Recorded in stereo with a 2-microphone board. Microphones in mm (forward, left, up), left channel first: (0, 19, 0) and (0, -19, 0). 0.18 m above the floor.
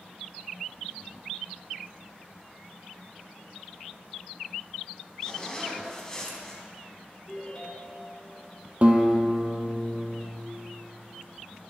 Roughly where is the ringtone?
Left.